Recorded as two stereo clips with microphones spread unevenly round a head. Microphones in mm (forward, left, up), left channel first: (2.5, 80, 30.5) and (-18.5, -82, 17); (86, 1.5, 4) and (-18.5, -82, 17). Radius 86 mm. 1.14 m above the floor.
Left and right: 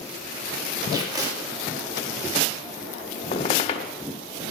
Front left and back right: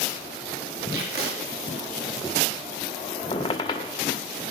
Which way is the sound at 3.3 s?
85° left.